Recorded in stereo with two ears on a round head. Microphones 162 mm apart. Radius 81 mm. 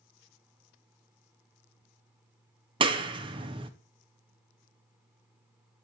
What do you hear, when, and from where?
2.8 s a clap: 30° right (ahead or behind), 0.6 m